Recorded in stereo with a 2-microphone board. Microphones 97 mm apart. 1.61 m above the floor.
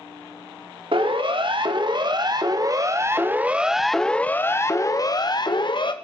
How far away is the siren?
About 2.5 m.